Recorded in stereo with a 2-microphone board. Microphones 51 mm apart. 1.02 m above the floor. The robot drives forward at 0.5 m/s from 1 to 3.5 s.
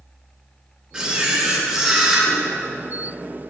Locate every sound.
0.9 s a camera shutter: 20° right (ahead or behind), 1.6 m; by 2.3 s 15° right (ahead or behind), 2.5 m